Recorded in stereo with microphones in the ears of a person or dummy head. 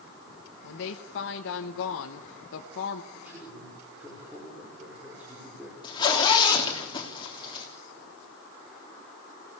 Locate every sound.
0.6 s a woman speaking: 60° left (ahead or behind), 1.3 m
3.1 s a man speaking: 10° right (ahead or behind), 5 m
5.8 s a zipper: 25° left (ahead or behind), 3.5 m